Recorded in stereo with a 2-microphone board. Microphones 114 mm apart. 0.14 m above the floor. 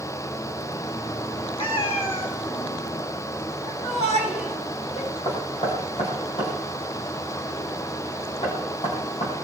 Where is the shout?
75° left (ahead or behind), 8 m.